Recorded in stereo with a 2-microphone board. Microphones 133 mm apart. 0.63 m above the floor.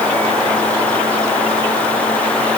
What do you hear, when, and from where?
Only background noise.